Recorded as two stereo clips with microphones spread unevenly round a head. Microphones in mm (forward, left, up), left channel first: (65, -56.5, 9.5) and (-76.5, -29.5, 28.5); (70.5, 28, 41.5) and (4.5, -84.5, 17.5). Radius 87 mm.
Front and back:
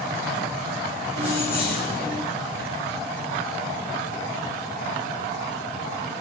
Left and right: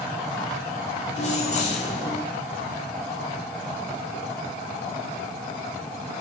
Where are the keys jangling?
20° left, 3.5 m; by 2.2 s 30° left, 4 m.